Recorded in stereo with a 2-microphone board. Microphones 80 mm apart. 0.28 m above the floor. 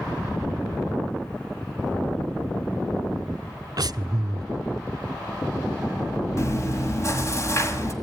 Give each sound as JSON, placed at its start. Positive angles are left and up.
{"t": 3.8, "sound": "breathing", "side_deg": -55, "distance_m": 0.6}
{"t": 6.4, "sound": "chewing", "side_deg": 40, "distance_m": 2.5}